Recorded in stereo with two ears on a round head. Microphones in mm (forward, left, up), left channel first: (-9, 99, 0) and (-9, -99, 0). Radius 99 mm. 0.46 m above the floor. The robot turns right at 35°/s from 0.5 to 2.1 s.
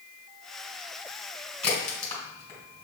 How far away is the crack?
About 2.0 m.